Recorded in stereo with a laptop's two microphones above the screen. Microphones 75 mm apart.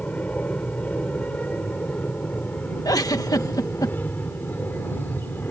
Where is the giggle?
60° left (ahead or behind).